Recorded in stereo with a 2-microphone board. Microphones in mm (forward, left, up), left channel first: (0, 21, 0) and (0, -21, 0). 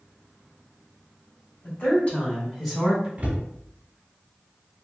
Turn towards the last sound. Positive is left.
turn(degrees=-40)  # may be behind; listen again after turning